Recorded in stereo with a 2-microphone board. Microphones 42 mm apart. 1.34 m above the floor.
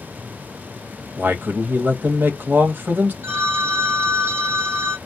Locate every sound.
1.2 s a man speaking: 50° right (ahead or behind), 1.0 m
3.2 s a phone ringing: 70° right (ahead or behind), 1.2 m